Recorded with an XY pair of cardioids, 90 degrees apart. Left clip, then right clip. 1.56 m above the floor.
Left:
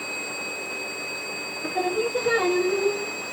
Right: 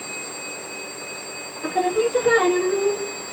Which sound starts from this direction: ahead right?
Singing, at 1.6 s.